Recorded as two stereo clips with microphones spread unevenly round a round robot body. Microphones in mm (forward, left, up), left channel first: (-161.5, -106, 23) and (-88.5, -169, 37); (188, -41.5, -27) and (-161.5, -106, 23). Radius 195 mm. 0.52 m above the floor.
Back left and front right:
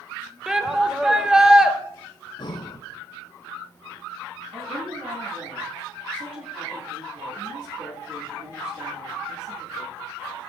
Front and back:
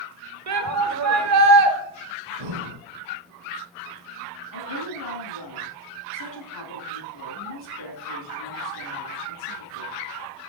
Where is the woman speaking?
15° right, 4 m.